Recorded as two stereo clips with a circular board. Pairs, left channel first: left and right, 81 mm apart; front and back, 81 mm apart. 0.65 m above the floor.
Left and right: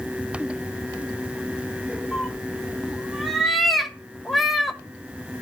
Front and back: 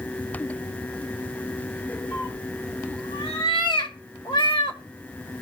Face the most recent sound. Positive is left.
turn(degrees=0)